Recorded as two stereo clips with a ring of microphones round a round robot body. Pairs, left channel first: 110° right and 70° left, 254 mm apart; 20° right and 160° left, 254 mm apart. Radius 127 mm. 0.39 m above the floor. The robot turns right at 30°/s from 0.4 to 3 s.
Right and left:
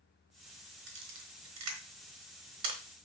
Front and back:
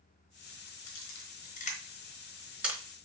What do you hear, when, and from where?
0.9 s a camera shutter: 20° left, 3.5 m; by 2.8 s 75° left, 3.5 m